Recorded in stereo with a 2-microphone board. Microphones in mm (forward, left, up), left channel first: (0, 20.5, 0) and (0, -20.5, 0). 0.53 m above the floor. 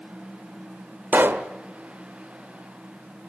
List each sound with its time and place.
1.1 s a pop: 65° right (ahead or behind), 1.1 m